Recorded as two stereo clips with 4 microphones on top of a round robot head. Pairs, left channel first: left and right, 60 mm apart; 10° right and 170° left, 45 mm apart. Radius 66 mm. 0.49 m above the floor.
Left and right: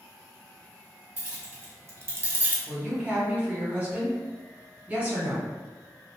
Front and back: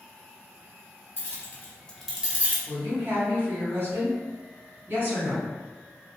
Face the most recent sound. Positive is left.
turn(degrees=-155)